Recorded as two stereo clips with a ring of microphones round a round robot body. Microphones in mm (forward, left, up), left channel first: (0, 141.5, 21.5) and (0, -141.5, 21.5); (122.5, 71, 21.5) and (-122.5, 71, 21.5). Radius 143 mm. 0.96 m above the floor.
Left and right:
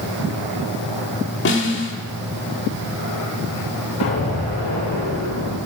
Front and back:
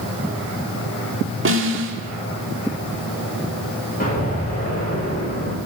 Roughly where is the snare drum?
Behind left.